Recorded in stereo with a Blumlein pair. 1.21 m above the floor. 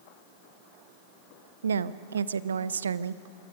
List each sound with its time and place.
1.6 s a woman speaking: 70° right, 0.5 m